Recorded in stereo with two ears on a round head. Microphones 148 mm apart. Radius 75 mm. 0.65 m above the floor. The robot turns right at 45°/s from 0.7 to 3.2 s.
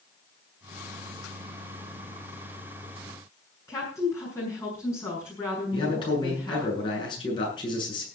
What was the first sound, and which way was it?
A woman speaking, 20° left (ahead or behind).